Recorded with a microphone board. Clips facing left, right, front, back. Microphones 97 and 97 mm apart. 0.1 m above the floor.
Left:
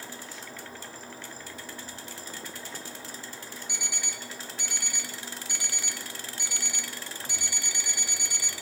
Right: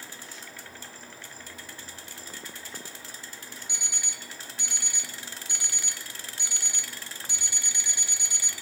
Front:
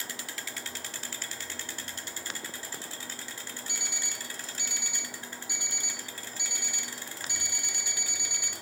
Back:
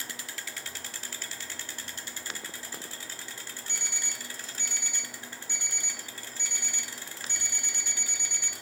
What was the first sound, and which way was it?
An alarm clock, 60° right.